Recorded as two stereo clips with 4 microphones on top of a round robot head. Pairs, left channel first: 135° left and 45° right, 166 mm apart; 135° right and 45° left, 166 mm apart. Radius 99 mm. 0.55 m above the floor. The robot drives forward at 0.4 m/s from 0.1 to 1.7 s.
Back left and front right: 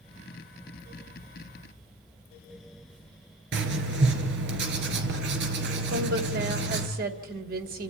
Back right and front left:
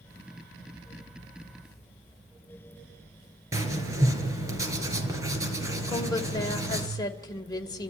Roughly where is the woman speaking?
Right.